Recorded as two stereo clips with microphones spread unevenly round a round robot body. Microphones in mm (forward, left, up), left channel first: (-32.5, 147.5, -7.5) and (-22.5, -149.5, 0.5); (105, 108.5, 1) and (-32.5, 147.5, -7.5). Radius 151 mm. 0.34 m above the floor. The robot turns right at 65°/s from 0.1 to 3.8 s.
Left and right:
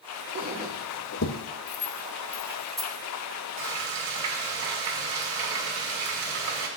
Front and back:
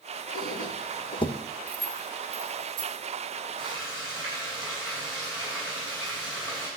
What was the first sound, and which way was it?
A squeak, 20° right.